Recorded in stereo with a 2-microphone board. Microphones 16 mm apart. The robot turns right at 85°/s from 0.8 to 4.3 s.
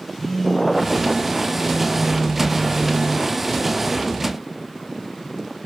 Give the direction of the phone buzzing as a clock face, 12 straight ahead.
6 o'clock.